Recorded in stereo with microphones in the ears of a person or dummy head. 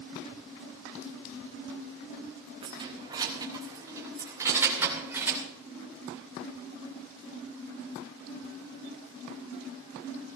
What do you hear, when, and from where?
2.6 s keys jangling: 30° right (ahead or behind), 2 m; by 5.4 s 10° right (ahead or behind), 4 m